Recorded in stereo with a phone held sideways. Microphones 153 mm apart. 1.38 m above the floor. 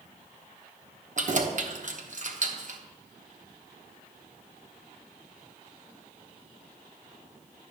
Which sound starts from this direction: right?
Keys jangling, at 1.2 s.